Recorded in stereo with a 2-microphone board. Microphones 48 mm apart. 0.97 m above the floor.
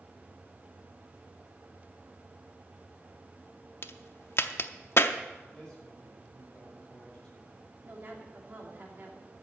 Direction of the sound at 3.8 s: 55° left (ahead or behind).